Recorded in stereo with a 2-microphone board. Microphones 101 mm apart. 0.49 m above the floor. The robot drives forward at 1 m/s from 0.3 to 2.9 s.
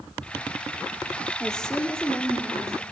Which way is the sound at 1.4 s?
5° left (ahead or behind).